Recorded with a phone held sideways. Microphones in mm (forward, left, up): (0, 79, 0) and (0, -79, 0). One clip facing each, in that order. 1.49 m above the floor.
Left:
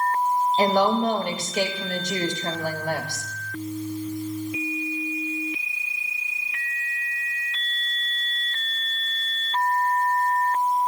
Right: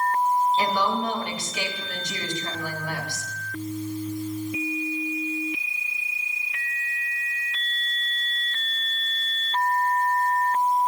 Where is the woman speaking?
45° left (ahead or behind), 2 m.